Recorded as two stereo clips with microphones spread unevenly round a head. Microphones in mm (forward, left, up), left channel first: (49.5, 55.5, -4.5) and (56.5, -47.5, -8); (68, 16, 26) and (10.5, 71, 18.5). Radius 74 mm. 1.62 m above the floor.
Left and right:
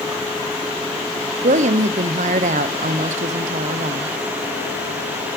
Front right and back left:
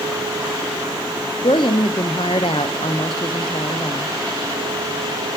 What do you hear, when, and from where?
1.4 s a woman speaking: 100° right, 0.6 m